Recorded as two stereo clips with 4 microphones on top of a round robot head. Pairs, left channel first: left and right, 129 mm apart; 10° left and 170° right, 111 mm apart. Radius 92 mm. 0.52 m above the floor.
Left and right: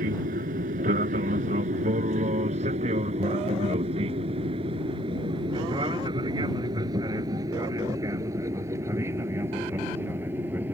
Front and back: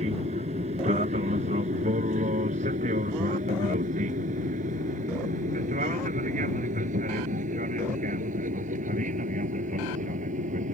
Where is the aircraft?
125° right; by 10.8 s 170° right.